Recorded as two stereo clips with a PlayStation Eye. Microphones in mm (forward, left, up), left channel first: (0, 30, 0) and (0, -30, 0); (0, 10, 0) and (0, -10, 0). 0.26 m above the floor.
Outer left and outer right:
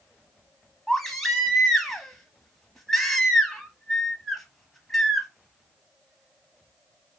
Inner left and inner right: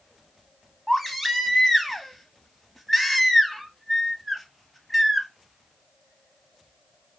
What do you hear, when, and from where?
0.9 s a baby crying: 5° left (ahead or behind), 0.6 m